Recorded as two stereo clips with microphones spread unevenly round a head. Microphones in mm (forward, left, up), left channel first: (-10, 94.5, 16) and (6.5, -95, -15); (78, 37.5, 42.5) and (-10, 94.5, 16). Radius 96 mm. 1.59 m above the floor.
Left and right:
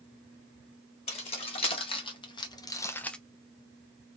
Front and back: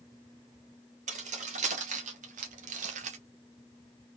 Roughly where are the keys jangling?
Behind left.